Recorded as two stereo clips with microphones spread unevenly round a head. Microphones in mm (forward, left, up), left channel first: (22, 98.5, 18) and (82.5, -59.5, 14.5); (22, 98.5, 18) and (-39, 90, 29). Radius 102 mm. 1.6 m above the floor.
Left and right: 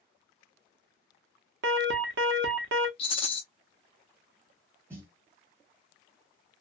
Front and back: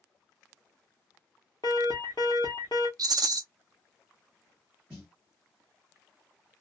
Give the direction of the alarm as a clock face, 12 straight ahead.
2 o'clock.